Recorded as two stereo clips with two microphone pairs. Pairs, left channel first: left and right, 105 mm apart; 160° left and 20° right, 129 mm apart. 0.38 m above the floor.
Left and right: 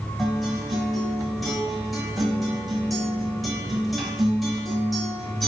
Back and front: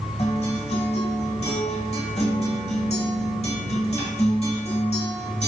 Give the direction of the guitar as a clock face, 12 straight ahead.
6 o'clock.